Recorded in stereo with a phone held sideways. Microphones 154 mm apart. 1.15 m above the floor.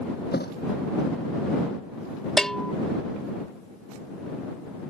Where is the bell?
5° left (ahead or behind).